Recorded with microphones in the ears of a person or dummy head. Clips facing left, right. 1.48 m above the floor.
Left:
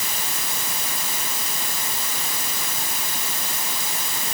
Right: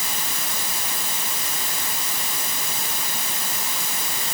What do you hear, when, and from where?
Only background noise.